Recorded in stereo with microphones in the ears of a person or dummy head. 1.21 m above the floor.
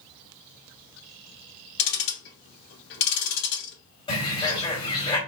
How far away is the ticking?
About 1.7 m.